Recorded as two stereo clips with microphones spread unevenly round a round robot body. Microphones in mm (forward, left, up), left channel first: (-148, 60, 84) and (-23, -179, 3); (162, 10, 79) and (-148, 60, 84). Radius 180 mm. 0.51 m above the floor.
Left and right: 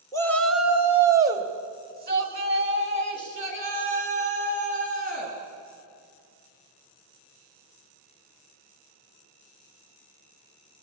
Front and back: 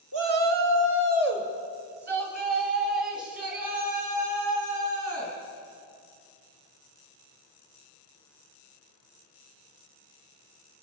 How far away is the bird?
No bird in this recording.